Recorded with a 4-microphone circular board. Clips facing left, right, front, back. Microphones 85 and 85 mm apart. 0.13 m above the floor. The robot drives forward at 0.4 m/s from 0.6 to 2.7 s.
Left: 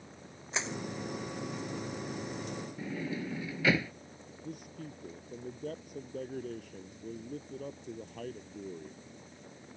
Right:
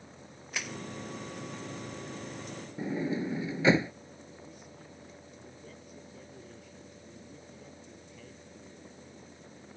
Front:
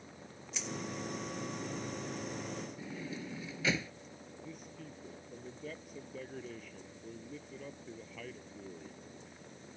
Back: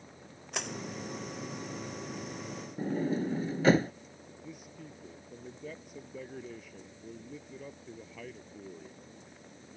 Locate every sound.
0.5 s crushing: 155° left
2.8 s a sliding door: 150° right
4.4 s a man speaking: 95° left